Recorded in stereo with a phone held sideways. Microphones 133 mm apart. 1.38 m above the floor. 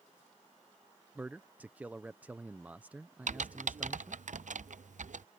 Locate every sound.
1.1 s a man speaking: 10° right (ahead or behind)
3.3 s typing on a keyboard: 65° right (ahead or behind)